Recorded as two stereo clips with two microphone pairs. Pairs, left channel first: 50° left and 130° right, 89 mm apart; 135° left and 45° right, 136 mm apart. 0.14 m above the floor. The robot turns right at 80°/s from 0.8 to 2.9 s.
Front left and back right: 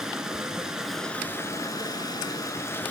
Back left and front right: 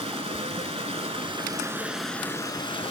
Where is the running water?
50° right, 0.8 m; by 2.9 s 115° left, 0.8 m.